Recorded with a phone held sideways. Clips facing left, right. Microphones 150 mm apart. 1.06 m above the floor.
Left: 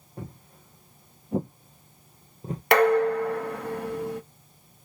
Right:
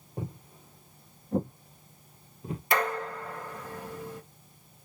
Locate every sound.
0.2 s footsteps: 20° right (ahead or behind), 1.2 m; by 2.6 s 40° left (ahead or behind), 1.4 m
2.7 s dishes clattering: 70° left (ahead or behind), 0.7 m